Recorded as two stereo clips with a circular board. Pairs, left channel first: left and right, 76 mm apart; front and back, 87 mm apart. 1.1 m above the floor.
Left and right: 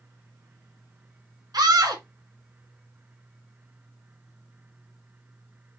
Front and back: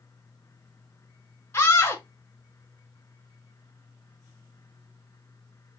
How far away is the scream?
About 1.4 m.